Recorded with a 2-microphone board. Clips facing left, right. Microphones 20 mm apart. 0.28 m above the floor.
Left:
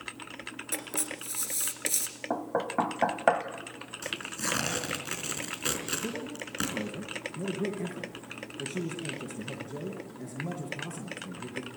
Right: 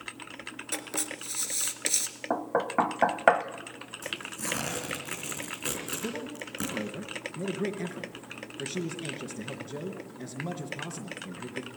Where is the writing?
30° right (ahead or behind), 2 m.